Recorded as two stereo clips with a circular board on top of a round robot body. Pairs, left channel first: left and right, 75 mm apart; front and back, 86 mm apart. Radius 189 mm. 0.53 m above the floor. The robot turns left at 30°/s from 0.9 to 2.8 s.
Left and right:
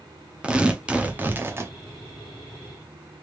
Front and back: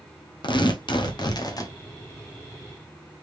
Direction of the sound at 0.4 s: 15° right.